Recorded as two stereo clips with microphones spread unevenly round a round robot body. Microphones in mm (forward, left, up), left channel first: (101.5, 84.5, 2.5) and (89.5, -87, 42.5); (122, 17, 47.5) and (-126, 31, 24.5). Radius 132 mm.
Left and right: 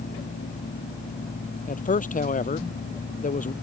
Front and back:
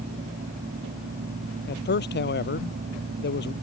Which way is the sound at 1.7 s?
45° left.